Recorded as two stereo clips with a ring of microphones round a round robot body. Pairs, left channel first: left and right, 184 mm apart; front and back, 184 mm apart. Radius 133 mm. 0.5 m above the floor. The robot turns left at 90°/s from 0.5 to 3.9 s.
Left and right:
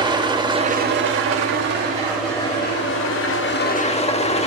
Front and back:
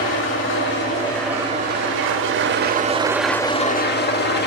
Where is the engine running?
20° right, 0.8 m; by 4.5 s 30° left, 0.8 m.